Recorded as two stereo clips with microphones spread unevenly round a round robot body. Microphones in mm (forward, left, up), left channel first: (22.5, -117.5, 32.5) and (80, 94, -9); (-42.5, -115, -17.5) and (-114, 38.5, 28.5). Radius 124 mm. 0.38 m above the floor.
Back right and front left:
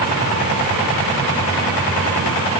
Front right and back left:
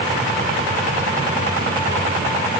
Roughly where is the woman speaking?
I don't hear a woman speaking.